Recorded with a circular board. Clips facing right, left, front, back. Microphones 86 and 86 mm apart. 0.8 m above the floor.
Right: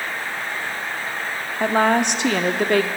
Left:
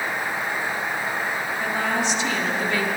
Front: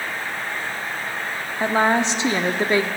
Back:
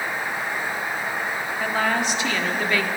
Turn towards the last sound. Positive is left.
turn(degrees=-60)